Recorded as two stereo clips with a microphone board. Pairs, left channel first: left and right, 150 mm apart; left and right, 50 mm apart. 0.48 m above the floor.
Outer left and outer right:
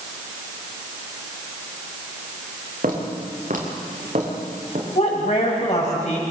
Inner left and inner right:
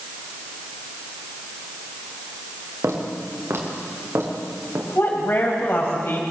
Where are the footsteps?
75° right (ahead or behind), 6 m; by 4.8 s 60° right (ahead or behind), 7.5 m.